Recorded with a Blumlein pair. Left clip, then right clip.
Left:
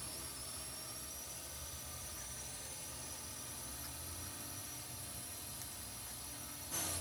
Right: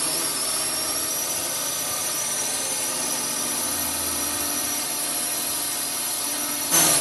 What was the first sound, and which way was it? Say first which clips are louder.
A drone: right 22 dB; 50° right.